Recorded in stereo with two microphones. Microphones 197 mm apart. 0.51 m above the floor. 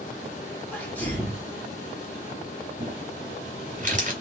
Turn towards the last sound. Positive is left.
turn(degrees=-40)  # may be behind; listen again after turning